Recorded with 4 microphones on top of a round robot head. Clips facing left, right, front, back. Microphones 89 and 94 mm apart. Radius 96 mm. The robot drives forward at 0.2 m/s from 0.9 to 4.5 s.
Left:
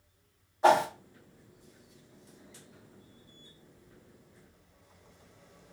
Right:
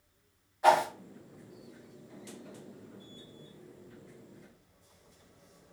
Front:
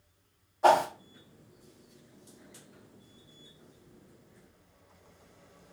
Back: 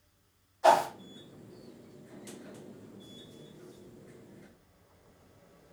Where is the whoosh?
30° left, 0.9 m.